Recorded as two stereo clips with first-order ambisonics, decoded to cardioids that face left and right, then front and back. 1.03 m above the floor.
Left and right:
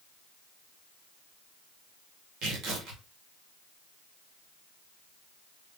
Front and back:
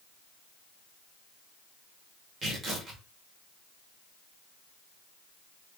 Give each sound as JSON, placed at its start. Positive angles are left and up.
{"t": 2.4, "sound": "tearing paper", "azimuth_deg": -110, "distance_m": 1.2}